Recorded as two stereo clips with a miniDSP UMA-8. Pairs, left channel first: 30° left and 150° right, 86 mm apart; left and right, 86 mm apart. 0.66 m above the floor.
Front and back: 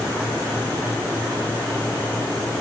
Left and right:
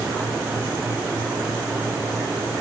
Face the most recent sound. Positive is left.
No sound to turn to.